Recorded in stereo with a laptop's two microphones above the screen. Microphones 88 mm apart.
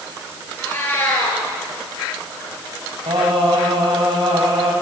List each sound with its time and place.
0.6 s a cat meowing: 30° left (ahead or behind), 6 m
3.1 s singing: 90° right, 4 m